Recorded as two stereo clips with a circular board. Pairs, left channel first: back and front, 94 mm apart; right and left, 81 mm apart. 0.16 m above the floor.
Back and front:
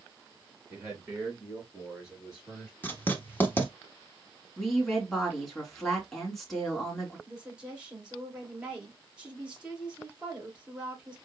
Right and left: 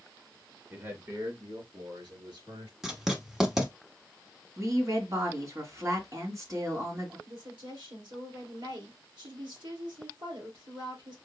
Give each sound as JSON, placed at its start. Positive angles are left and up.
{"t": 0.7, "sound": "a man speaking", "azimuth_deg": 60, "distance_m": 1.5}
{"t": 2.8, "sound": "writing", "azimuth_deg": 165, "distance_m": 1.0}
{"t": 4.6, "sound": "a woman speaking", "azimuth_deg": 95, "distance_m": 1.9}
{"t": 7.3, "sound": "a woman speaking", "azimuth_deg": 80, "distance_m": 3.0}